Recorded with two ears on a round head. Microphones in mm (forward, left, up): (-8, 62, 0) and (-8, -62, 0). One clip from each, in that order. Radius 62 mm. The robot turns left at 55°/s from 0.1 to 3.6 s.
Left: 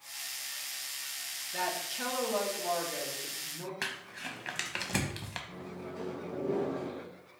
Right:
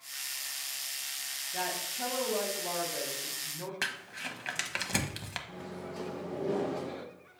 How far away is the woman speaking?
About 2.0 m.